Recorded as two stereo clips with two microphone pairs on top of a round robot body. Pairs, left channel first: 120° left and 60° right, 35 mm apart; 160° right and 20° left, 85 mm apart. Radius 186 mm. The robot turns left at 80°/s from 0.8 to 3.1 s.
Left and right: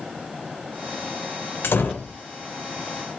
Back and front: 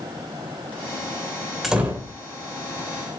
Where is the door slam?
115° left, 3 m; by 2.1 s 75° left, 3 m.